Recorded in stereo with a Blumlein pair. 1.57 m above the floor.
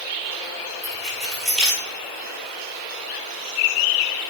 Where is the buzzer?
No buzzer in this recording.